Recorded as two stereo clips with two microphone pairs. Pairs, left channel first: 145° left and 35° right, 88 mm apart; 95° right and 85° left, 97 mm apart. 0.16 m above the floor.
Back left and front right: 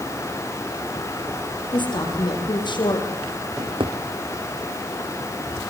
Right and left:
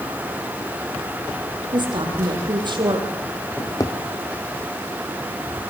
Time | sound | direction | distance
1.7 | a woman speaking | 120° left | 7 m
3.6 | a drawer | 45° right | 3 m